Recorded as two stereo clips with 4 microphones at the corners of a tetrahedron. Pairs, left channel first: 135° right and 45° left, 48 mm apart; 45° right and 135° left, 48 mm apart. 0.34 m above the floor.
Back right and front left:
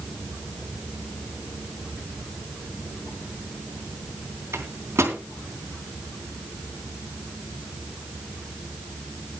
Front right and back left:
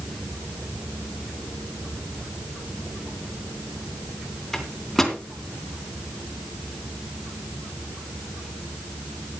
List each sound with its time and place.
4.5 s a microwave: 40° left, 3 m